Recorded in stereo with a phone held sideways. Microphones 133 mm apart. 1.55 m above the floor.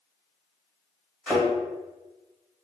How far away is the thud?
About 1.5 m.